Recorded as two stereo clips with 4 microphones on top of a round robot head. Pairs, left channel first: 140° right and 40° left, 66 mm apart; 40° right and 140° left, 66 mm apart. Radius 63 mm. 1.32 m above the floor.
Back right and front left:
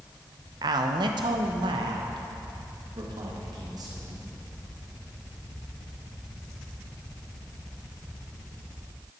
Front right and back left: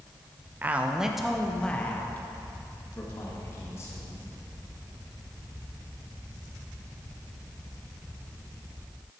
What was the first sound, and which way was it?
A man speaking, 75° left.